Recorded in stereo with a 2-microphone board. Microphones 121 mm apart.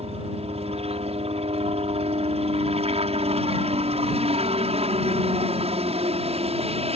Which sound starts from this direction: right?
A helicopter, at 0.0 s.